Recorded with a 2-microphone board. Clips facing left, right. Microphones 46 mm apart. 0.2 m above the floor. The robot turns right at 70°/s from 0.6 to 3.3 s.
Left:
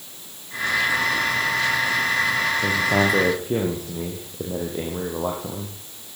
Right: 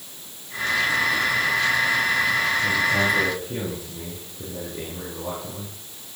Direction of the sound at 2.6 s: 80° left.